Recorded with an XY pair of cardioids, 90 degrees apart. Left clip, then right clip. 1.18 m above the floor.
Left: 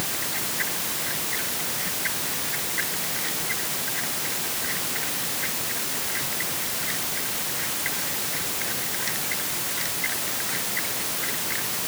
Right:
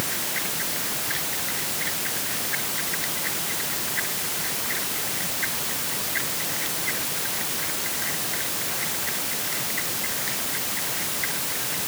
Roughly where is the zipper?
No zipper in this recording.